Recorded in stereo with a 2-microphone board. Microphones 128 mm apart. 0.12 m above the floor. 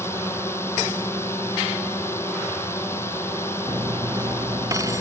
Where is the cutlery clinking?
25° right (ahead or behind).